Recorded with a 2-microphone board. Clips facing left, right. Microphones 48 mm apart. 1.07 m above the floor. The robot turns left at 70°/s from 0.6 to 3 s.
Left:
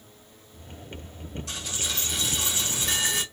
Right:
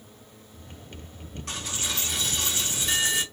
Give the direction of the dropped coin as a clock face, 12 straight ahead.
4 o'clock.